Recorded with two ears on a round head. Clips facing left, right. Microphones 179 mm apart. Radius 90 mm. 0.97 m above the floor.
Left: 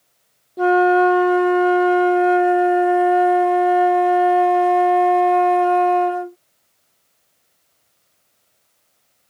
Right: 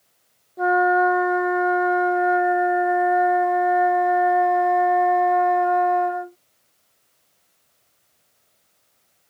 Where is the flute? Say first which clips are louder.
Left 5 dB; 40° left (ahead or behind).